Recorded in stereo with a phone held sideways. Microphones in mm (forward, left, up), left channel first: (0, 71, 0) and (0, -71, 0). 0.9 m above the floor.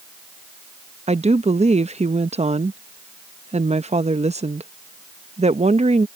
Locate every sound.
1.1 s a woman speaking: 50° right (ahead or behind)